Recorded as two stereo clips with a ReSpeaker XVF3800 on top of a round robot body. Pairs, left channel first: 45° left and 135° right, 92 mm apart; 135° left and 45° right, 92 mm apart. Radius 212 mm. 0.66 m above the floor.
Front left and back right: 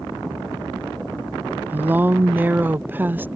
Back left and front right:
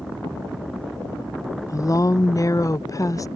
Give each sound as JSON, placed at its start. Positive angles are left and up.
{"t": 1.7, "sound": "a woman speaking", "azimuth_deg": 165}